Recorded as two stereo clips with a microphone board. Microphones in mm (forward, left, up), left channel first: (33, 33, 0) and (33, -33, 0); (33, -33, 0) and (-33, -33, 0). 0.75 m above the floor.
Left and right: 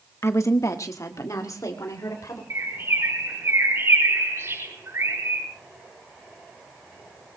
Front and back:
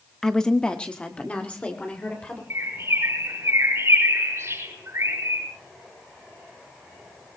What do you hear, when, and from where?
0.2 s a woman speaking: 80° left, 1.0 m; by 2.4 s 65° left, 3 m
2.5 s a bird: 135° right, 5.5 m